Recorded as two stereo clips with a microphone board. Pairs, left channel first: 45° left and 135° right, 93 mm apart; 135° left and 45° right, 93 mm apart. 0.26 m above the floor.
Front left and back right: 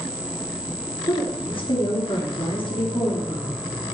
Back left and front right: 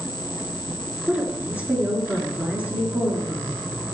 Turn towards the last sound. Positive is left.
turn(degrees=30)